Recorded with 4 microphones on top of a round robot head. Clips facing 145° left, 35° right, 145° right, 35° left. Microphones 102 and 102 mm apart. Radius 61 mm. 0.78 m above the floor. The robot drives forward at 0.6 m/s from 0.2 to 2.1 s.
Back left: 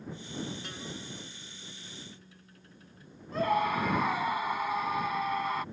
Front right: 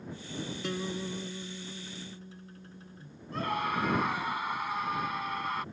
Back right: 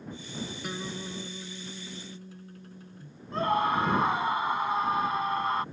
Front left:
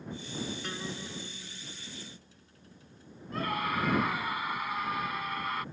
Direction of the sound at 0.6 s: 60° right.